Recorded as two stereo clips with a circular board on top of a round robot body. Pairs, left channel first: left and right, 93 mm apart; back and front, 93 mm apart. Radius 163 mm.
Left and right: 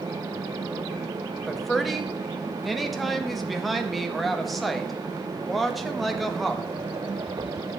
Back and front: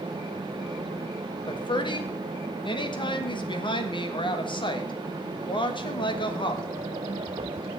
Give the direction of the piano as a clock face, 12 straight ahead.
No piano in this recording.